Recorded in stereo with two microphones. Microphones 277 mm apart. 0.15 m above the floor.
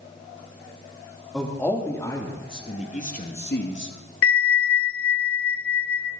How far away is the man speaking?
About 4 m.